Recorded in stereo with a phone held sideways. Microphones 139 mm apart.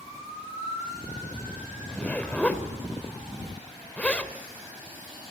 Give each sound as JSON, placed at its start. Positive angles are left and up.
{"t": 1.9, "sound": "a zipper", "side_deg": 10, "distance_m": 2.5}